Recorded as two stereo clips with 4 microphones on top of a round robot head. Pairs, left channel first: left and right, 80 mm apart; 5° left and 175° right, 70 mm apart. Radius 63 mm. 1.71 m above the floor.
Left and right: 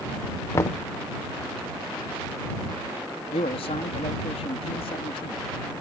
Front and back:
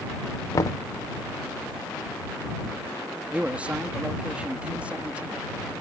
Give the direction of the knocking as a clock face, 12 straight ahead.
11 o'clock.